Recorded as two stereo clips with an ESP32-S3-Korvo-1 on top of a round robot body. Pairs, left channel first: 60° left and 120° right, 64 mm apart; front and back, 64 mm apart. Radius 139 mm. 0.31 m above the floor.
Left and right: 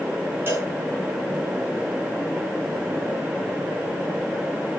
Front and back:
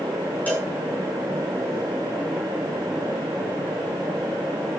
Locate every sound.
0.5 s a cowbell: 65° right, 7 m